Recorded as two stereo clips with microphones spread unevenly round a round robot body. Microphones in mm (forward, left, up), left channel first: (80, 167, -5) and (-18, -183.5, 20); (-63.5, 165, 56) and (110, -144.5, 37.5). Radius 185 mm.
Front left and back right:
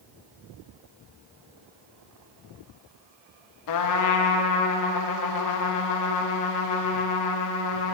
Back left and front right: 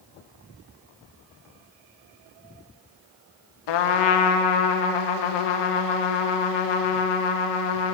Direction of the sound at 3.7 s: 115° left.